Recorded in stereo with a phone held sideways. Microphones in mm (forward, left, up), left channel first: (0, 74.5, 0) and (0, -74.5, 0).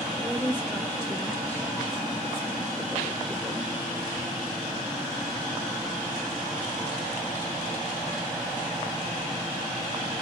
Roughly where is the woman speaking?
Centre.